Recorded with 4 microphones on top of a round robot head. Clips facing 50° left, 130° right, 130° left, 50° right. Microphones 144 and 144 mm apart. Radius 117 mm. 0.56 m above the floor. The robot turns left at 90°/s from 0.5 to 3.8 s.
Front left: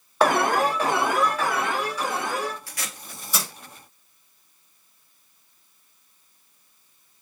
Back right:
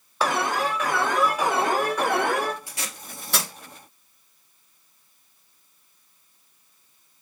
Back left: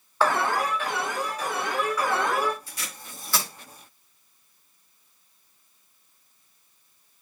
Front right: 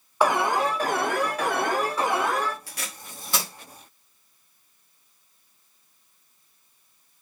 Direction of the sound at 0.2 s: 25° left.